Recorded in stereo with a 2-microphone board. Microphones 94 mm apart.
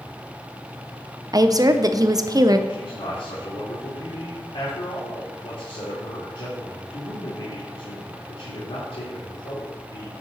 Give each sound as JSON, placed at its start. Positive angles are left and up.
{"t": 1.3, "sound": "a woman speaking", "side_deg": -40, "distance_m": 0.6}
{"t": 2.7, "sound": "a man speaking", "side_deg": 70, "distance_m": 3.0}